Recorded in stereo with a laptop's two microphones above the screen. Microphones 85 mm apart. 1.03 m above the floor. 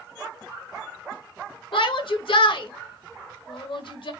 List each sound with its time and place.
1.7 s a shout: 75° left (ahead or behind), 0.9 m